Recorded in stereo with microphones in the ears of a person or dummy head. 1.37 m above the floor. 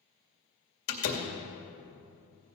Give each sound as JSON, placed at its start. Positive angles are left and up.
{"t": 0.9, "sound": "a door slam", "side_deg": 50, "distance_m": 2.0}